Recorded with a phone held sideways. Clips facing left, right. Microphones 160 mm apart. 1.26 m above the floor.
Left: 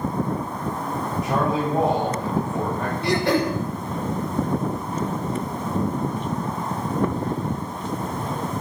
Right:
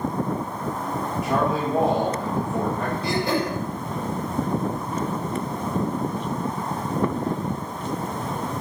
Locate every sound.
1.2 s a man speaking: centre (ahead or behind), 9 m
3.0 s throat clearing: 70° left (ahead or behind), 5.5 m